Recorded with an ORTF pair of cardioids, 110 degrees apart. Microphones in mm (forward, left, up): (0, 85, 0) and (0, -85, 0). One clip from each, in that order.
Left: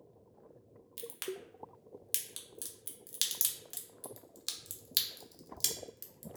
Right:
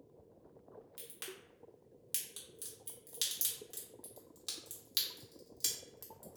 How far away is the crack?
About 0.7 m.